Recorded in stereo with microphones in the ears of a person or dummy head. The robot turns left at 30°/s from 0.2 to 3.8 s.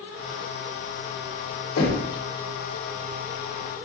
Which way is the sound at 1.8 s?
85° left.